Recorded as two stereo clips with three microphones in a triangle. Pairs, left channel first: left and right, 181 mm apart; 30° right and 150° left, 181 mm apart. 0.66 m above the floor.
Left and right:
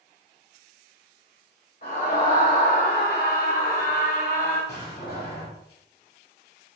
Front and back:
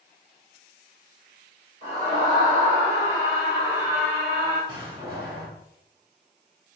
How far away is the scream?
About 2 m.